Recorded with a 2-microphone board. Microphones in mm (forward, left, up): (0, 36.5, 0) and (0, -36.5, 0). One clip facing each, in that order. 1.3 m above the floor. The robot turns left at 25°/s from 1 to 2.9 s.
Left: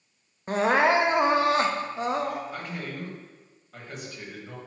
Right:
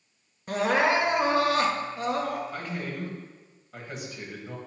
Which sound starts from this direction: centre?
A man speaking, at 2.5 s.